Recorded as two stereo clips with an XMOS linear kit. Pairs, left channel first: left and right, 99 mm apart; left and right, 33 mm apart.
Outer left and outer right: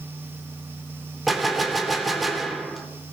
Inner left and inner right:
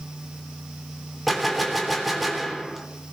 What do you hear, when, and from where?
1.3 s a gunshot: centre (ahead or behind), 3 m